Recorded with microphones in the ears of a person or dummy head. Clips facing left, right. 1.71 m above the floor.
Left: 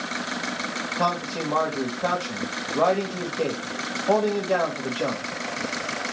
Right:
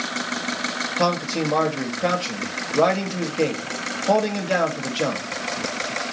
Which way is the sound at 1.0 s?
25° right (ahead or behind).